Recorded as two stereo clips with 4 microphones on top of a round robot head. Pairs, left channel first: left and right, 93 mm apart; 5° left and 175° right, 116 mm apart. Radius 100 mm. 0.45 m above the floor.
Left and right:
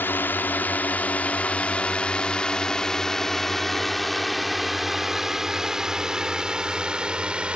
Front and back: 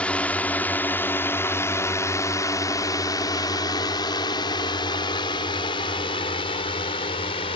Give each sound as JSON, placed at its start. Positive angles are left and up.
{"t": 0.0, "sound": "a drone", "azimuth_deg": 65}